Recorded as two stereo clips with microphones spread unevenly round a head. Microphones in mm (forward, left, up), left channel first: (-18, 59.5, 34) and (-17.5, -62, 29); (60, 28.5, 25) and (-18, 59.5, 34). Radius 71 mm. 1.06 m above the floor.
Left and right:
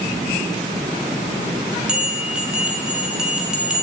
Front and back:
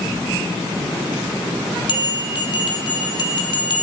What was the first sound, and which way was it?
A bell, 5° right.